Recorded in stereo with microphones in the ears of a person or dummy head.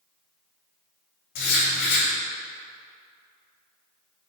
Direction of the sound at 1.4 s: 65° left (ahead or behind).